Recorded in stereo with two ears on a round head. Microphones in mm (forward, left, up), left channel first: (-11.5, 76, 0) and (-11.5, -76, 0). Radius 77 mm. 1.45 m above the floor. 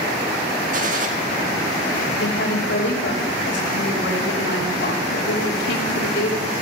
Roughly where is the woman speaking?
Left.